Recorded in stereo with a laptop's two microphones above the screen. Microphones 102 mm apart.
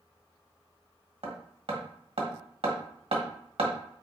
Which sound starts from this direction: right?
Hammering, at 1.2 s.